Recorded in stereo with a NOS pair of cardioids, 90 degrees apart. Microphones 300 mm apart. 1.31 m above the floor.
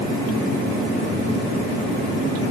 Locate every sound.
Only background noise.